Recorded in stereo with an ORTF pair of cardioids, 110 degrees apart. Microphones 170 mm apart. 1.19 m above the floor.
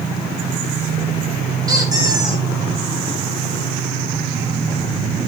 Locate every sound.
1.7 s a squeak: 20° right, 3 m